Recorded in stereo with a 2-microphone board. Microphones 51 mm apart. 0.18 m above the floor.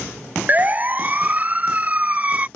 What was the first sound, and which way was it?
A siren, 35° right (ahead or behind).